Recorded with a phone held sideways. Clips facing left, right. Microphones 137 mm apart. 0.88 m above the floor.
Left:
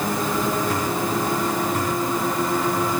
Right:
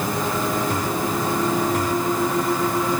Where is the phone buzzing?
I don't hear a phone buzzing.